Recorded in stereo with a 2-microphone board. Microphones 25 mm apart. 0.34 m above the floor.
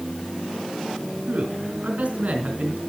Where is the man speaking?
65° right (ahead or behind), 3.5 m.